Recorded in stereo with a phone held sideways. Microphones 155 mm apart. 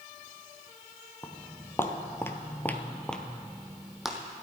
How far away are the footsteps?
About 1.6 m.